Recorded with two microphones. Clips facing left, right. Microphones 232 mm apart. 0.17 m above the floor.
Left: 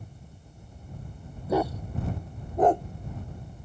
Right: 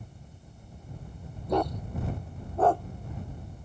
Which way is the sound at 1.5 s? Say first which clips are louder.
Left 2 dB; 5° left (ahead or behind).